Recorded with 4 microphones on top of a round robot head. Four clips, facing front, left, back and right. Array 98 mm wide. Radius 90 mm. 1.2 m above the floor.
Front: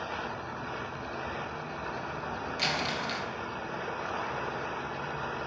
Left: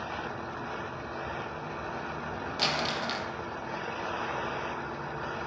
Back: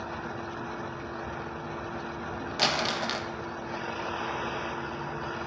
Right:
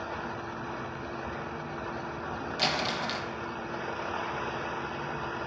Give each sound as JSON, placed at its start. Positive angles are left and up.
{"t": 2.6, "sound": "crumpling", "azimuth_deg": 175, "distance_m": 1.3}